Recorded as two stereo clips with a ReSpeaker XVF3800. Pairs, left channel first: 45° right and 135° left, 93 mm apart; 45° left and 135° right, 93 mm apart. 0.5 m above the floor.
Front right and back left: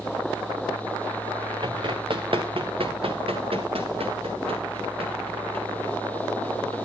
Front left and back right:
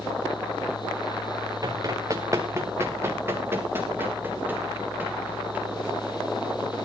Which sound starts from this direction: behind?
Running footsteps, at 1.6 s.